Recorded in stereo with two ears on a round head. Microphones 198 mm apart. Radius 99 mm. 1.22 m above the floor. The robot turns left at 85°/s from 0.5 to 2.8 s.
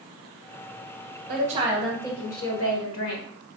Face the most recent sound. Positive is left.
turn(degrees=100)